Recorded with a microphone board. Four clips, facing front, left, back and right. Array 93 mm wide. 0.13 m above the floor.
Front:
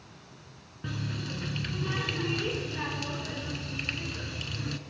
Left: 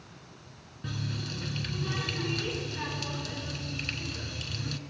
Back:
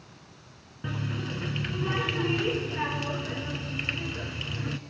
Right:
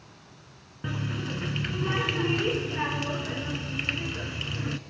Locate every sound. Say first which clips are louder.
0.8 s a running tap: right 5 dB, back 3 dB; 110° right, 0.8 m